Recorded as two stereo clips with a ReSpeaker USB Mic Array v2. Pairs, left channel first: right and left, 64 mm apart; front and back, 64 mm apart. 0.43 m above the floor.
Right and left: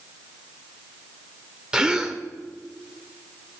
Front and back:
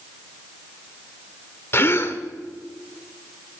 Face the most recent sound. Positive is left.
turn(degrees=15)